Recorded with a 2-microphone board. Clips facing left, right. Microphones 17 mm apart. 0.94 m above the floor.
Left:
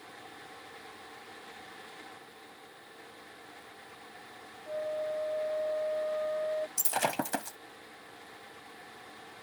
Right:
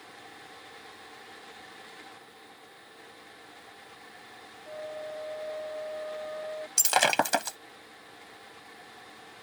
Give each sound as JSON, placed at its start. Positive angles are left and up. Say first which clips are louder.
{"t": 4.7, "sound": "a flute", "louder": "left 5 dB", "side_deg": 25}
{"t": 6.8, "sound": "breaking glass", "louder": "right 13 dB", "side_deg": -55}